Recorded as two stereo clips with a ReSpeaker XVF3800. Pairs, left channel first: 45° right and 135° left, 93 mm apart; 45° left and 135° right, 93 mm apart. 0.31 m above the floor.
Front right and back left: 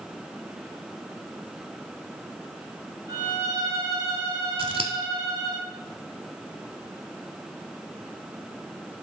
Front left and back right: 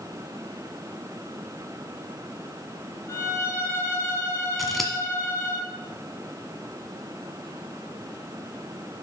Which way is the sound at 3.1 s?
95° left.